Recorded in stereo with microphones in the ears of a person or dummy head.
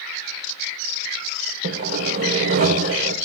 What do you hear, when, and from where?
1.6 s sawing: 50° right (ahead or behind), 1.6 m